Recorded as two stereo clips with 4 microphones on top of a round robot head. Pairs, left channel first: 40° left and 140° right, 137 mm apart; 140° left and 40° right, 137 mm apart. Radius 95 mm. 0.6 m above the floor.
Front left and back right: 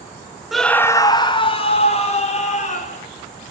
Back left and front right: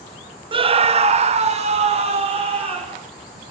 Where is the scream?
55° right, 0.7 m; by 3.0 s 5° left, 2 m.